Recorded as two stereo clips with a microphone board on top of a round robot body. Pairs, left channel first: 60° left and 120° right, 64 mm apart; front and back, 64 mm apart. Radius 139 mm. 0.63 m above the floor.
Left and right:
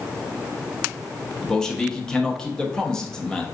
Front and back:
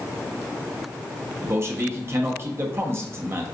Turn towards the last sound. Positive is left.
turn(degrees=140)